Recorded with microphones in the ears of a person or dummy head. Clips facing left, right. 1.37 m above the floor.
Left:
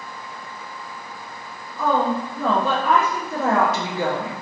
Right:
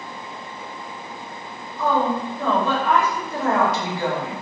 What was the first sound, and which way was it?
A woman speaking, 65° left (ahead or behind).